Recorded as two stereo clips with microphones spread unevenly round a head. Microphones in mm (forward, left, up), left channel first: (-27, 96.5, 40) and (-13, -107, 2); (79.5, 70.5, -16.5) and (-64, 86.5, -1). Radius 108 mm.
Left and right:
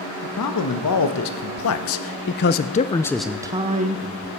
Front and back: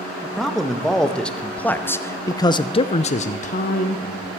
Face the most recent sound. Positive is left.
turn(degrees=-55)